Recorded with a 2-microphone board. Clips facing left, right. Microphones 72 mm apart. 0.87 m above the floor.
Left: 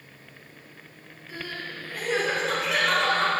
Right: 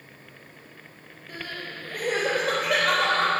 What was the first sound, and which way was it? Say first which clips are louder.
Crying: even; 45° right (ahead or behind).